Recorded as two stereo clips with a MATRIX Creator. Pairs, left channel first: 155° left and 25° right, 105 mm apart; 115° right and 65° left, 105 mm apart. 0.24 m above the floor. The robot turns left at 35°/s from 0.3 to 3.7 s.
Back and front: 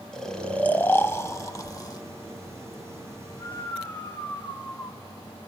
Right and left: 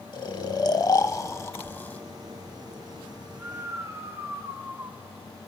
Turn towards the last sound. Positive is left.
turn(degrees=120)